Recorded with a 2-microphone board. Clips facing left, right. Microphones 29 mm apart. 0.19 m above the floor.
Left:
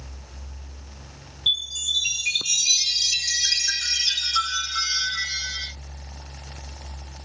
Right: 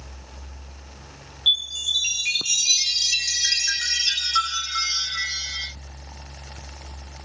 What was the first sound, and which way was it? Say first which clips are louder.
A chime: right 2 dB; 25° right (ahead or behind).